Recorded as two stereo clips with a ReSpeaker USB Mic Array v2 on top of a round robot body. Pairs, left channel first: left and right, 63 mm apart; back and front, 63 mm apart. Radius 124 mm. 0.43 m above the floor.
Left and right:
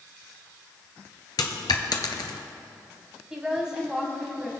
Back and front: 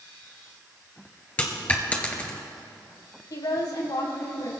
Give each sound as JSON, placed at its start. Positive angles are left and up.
{"t": 1.4, "sound": "a dropped coin", "azimuth_deg": 110, "distance_m": 0.9}
{"t": 3.3, "sound": "a woman speaking", "azimuth_deg": -170, "distance_m": 4.5}